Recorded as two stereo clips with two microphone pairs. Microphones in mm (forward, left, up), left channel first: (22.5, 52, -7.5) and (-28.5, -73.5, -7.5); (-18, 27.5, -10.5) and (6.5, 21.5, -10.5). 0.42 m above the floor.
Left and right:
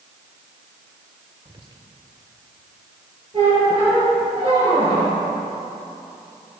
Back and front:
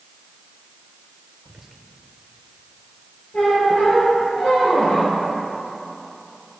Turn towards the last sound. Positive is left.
turn(degrees=-160)